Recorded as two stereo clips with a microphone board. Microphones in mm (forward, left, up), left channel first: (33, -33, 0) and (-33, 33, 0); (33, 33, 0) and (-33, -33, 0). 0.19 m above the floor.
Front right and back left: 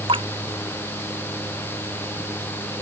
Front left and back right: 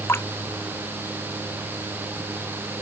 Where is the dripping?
110° left.